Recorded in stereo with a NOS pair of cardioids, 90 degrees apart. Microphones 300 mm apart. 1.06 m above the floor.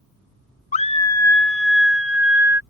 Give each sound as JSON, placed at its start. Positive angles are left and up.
{"t": 0.7, "sound": "a scream", "azimuth_deg": 25}